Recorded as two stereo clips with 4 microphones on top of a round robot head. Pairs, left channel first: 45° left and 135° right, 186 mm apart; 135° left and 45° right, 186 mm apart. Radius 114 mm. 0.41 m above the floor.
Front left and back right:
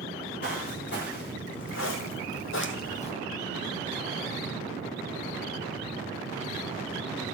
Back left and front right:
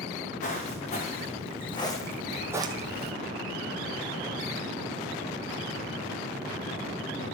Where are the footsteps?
85° left, 2.5 m; by 3.1 s 15° right, 0.9 m.